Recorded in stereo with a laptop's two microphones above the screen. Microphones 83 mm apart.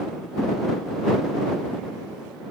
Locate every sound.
Only background noise.